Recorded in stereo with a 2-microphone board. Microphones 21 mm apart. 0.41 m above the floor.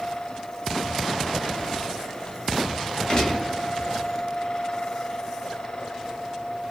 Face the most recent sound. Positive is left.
turn(degrees=30)  # may be behind; listen again after turning